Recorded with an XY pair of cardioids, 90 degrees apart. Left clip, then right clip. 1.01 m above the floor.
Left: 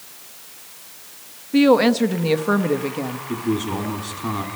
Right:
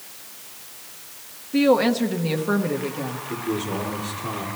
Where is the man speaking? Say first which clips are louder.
Left 3 dB; 60° left, 2.5 m.